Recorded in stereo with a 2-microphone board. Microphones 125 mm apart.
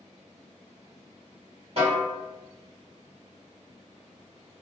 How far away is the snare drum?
About 1.8 m.